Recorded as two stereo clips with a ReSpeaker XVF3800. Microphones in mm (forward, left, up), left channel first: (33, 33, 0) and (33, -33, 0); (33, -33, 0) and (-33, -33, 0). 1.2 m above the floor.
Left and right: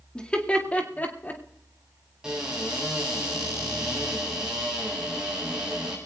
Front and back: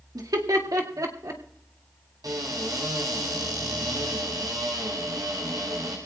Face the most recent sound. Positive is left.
turn(degrees=-170)